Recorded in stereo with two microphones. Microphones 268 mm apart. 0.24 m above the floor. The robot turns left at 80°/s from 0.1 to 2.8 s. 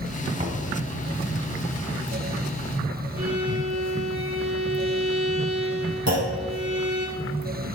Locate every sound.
0.4 s knocking: 30° right (ahead or behind), 1.4 m; by 0.6 s 40° right (ahead or behind), 1.4 m
3.2 s a violin: 55° right (ahead or behind), 4 m
6.1 s a clunk: 80° right, 4.5 m